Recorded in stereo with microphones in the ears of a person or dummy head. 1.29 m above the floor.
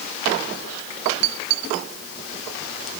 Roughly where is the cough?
No cough in this recording.